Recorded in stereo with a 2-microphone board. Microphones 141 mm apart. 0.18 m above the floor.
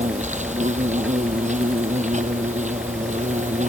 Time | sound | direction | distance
0.0 | an insect | 60° right (ahead or behind) | ?